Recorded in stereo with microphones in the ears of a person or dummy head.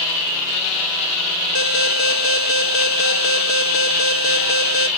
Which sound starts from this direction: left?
An alarm, at 1.6 s.